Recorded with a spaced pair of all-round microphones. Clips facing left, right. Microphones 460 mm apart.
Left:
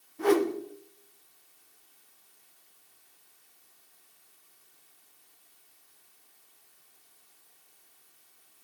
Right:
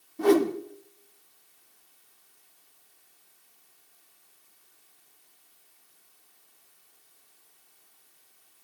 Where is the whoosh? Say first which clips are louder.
Right 3 dB; 55° right (ahead or behind), 1.0 m.